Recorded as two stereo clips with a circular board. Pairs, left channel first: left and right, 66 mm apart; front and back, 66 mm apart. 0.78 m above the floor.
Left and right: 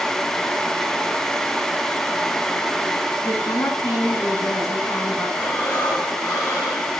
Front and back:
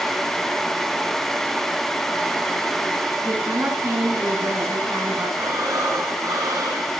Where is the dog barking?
I don't hear a dog barking.